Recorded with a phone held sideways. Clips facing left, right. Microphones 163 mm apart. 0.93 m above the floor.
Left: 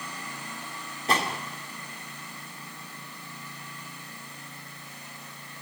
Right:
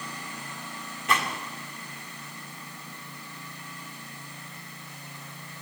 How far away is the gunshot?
About 2 m.